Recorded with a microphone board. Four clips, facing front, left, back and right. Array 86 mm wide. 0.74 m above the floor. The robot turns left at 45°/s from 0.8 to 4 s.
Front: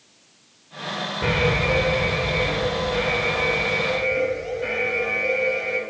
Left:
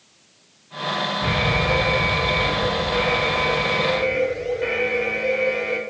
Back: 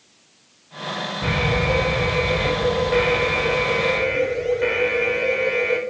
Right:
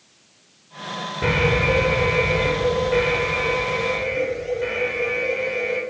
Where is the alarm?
60° right, 3.5 m; by 5.8 s 170° left, 3.5 m.